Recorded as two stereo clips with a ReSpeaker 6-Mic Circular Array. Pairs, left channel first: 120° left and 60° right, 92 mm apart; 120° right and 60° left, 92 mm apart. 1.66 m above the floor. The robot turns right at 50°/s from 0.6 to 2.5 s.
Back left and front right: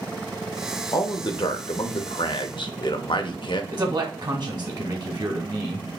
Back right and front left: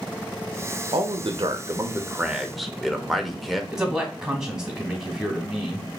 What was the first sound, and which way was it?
A man speaking, 70° left.